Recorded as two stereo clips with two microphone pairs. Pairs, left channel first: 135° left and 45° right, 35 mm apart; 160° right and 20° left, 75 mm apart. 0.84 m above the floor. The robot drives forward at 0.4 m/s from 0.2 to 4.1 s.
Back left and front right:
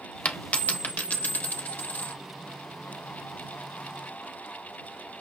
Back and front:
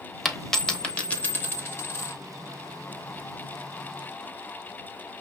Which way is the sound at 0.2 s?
105° left.